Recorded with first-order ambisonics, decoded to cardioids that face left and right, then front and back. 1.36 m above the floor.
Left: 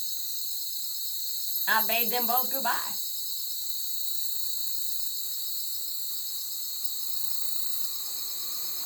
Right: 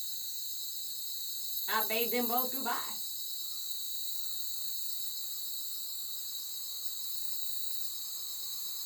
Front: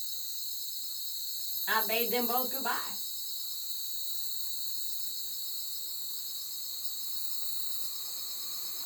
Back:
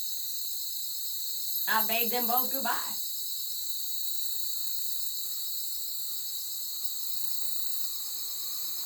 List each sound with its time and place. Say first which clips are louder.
0.0 s an insect: left 6 dB, back 2 dB; 120° left, 0.7 m
1.7 s a woman speaking: left 6 dB, back 1 dB; 105° left, 1.0 m